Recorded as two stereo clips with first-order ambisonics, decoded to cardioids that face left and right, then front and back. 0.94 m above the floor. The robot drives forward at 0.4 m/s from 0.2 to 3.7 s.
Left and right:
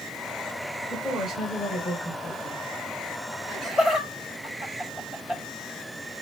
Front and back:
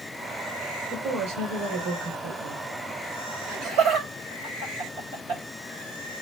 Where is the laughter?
160° left, 4 m.